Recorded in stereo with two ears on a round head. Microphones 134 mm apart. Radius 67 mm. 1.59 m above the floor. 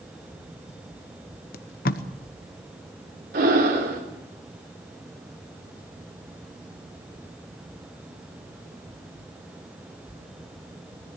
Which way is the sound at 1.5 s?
65° left (ahead or behind).